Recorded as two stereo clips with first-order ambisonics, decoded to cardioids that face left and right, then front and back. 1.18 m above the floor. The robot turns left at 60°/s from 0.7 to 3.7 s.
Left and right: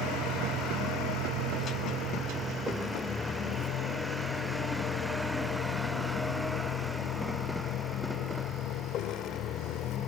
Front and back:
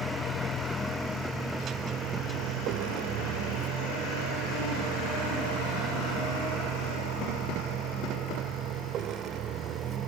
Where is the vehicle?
50° right; by 10.1 s 130° left.